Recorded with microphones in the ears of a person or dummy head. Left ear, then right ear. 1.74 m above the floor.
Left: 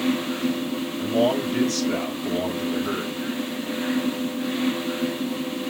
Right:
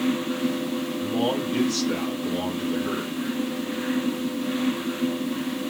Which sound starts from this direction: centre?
A man speaking, at 1.0 s.